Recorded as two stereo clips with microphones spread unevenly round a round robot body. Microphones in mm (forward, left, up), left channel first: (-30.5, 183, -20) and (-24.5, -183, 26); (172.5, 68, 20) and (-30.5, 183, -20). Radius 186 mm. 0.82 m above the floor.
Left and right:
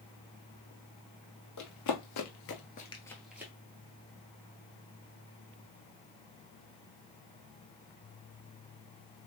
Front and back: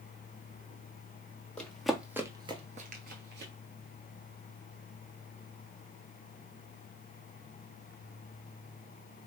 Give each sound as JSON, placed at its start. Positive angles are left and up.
{"t": 1.6, "sound": "running footsteps", "azimuth_deg": 50, "distance_m": 1.3}